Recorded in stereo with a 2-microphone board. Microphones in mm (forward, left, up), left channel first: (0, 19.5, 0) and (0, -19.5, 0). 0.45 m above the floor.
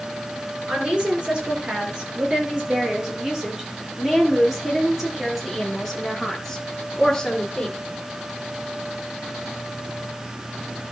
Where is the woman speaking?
30° right (ahead or behind), 6.5 m; by 7.8 s 10° left (ahead or behind), 5.5 m.